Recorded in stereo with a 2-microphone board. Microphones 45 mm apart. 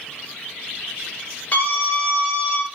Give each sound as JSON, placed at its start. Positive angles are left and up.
{"t": 1.5, "sound": "a scream", "side_deg": 25, "distance_m": 4.0}